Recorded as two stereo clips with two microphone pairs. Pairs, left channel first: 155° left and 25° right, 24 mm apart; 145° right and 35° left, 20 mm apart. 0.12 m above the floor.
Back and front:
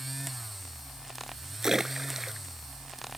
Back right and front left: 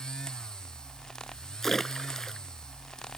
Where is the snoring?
I don't hear snoring.